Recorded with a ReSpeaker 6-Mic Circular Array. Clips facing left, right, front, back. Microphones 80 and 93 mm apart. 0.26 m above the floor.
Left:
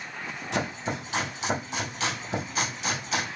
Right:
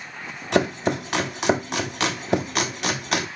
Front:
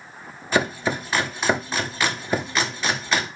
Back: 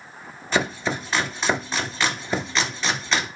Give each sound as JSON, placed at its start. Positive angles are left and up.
{"t": 0.5, "sound": "chopping", "azimuth_deg": -80, "distance_m": 1.0}